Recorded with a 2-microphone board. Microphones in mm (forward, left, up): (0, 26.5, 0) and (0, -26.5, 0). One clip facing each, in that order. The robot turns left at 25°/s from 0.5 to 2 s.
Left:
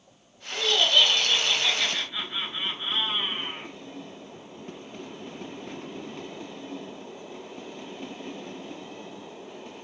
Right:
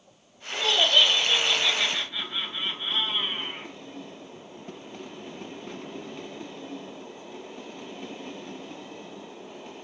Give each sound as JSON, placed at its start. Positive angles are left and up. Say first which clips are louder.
{"t": 0.5, "sound": "laughter", "louder": "right 1 dB", "azimuth_deg": -160, "distance_m": 3.0}